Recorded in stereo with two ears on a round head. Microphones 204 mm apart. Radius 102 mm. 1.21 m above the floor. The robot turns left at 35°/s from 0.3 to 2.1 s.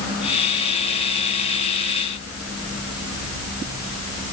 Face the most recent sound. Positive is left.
No sound to turn to.